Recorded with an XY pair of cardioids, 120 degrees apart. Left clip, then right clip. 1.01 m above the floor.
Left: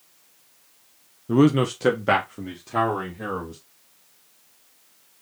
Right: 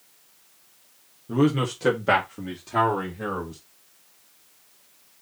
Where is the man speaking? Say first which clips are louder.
Left 4 dB; 45° left, 1.0 m; by 3.6 s straight ahead, 2.5 m.